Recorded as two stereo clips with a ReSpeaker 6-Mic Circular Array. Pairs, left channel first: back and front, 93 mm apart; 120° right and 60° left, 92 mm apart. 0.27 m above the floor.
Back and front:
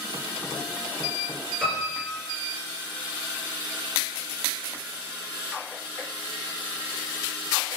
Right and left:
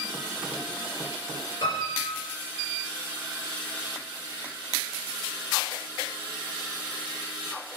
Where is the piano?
90° right, 3 m.